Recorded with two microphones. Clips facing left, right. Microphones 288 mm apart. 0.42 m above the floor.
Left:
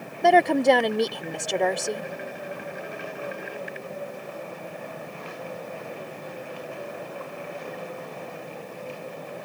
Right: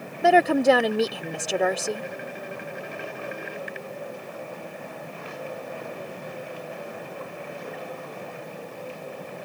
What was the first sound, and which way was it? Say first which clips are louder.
A woman speaking: even; 5° right (ahead or behind).